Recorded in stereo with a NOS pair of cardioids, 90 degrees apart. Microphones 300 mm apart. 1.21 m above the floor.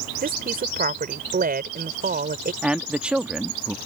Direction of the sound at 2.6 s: 5° right.